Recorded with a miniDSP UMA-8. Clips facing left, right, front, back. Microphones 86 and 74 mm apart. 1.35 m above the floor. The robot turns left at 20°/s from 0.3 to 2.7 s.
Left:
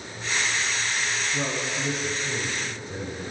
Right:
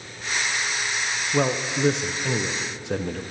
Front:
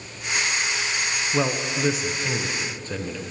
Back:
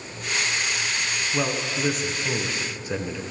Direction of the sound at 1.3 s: 75° right.